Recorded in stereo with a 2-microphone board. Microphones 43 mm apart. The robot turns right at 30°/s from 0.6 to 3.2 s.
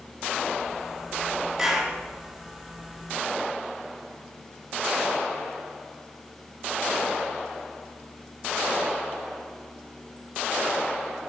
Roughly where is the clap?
Centre.